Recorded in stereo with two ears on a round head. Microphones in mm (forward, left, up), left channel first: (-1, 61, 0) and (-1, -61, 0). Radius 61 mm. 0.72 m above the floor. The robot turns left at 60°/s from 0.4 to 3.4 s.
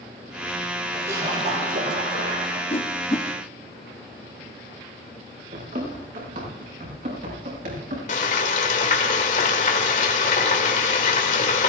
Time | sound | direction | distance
0.9 | a splash | 10° right | 5.5 m
2.7 | a whoosh | 45° left (ahead or behind) | 1.1 m
5.5 | running footsteps | 60° right (ahead or behind) | 7 m
8.1 | frying | 60° left (ahead or behind) | 1.9 m